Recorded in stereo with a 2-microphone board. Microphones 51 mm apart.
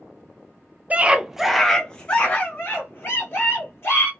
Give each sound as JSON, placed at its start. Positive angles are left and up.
{"t": 0.9, "sound": "a scream", "side_deg": -30, "distance_m": 0.6}